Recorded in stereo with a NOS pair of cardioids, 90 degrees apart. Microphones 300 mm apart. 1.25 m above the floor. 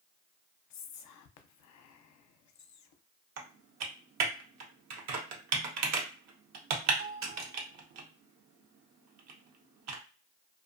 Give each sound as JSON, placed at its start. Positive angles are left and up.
{"t": 0.7, "sound": "whispering", "azimuth_deg": 65, "distance_m": 0.6}
{"t": 3.4, "sound": "typing on a keyboard", "azimuth_deg": -65, "distance_m": 0.8}